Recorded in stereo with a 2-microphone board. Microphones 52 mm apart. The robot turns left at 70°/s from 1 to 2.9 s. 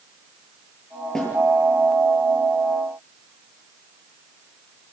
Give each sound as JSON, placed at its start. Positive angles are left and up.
{"t": 1.1, "sound": "a snare drum", "side_deg": 10, "distance_m": 8.0}